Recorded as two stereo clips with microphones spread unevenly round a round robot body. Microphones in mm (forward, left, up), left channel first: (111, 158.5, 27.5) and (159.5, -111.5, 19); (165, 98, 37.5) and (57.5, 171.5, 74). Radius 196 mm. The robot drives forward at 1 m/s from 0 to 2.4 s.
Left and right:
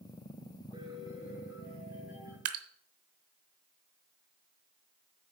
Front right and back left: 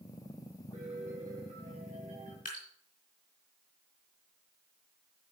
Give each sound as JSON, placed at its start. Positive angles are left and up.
{"t": 0.7, "sound": "a piano", "azimuth_deg": -155, "distance_m": 2.0}
{"t": 2.5, "sound": "dripping", "azimuth_deg": -95, "distance_m": 0.8}